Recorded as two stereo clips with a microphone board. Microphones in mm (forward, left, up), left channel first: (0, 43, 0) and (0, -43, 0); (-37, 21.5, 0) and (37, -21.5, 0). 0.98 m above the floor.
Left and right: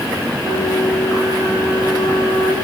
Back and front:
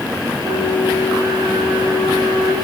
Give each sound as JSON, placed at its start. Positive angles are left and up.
{"t": 0.4, "sound": "a flute", "azimuth_deg": -60, "distance_m": 7.0}